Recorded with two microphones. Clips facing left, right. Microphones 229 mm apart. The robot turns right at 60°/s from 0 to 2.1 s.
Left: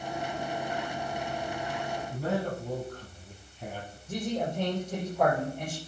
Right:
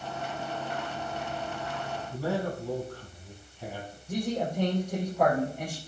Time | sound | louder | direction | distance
2.1 | a man speaking | right 1 dB | 5° left (ahead or behind) | 3 m
4.1 | a man speaking | right 1 dB | 10° right (ahead or behind) | 3.5 m